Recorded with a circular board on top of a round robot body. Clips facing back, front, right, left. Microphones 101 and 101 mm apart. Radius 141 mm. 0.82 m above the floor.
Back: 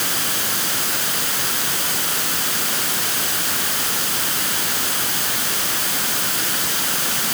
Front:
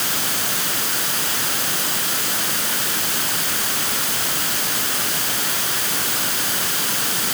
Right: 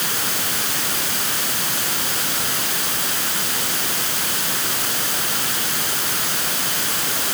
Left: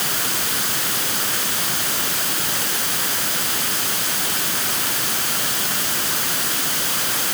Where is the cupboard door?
No cupboard door in this recording.